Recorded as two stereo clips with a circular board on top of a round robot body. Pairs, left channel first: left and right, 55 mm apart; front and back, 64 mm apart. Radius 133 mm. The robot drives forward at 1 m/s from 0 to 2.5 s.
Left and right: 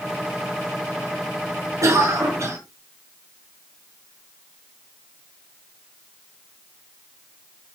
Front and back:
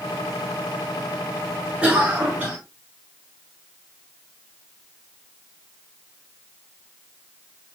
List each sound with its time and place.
1.8 s a cough: 110° right, 6.5 m; by 2.6 s 115° right, 6.5 m